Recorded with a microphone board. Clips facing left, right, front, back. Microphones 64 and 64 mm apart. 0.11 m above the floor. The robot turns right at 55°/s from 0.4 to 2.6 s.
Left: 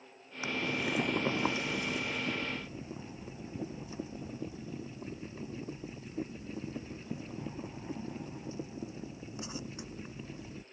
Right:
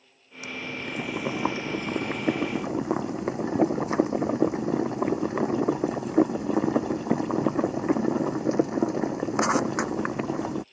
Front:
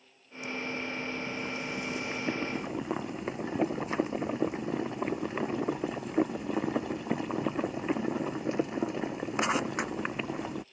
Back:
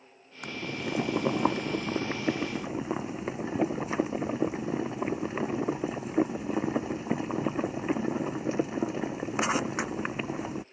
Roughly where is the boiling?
Behind left.